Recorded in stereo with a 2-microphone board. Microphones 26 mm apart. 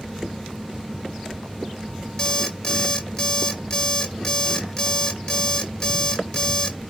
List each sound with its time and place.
2.2 s an alarm clock: 25° left (ahead or behind), 0.8 m